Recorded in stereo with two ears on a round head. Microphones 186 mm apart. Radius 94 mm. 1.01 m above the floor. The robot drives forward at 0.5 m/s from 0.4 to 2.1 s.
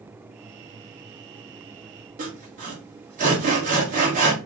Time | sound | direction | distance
2.2 | sawing | 40° right (ahead or behind) | 1.2 m